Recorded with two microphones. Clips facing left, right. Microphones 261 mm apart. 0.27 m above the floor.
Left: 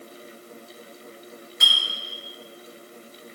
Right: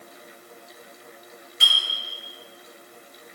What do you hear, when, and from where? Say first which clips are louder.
1.6 s a clink: right 1 dB; 35° right (ahead or behind), 3.5 m